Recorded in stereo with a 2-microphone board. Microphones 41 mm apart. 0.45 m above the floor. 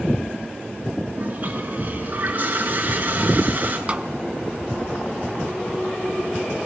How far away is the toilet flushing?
About 7 m.